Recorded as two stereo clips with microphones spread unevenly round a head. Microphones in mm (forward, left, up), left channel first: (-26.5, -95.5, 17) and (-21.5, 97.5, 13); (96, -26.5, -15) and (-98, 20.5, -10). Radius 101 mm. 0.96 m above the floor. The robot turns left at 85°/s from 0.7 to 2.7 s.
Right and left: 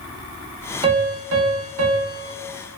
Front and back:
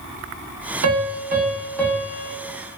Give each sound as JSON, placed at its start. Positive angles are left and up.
{"t": 0.8, "sound": "a piano", "azimuth_deg": 155, "distance_m": 0.6}